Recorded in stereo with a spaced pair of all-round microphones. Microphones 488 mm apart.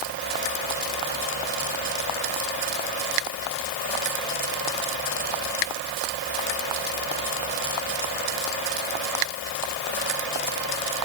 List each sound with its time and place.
Only background noise.